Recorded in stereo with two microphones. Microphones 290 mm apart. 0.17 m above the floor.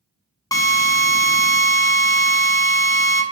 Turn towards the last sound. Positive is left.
turn(degrees=10)  # may be behind; listen again after turning